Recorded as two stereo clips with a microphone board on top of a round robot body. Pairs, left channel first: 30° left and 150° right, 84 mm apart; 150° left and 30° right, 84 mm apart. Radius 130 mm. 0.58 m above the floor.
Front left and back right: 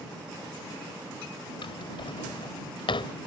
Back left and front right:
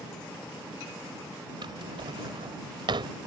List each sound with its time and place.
1.6 s a drawer: 5° left